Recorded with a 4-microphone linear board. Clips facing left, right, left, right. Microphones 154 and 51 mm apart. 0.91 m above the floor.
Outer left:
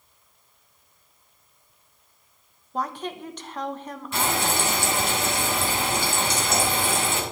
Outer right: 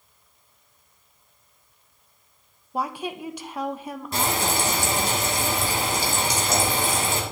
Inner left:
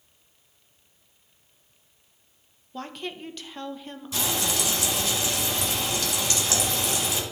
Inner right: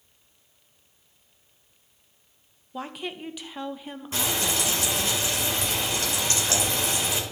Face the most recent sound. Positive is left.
turn(degrees=-40)  # may be behind; listen again after turning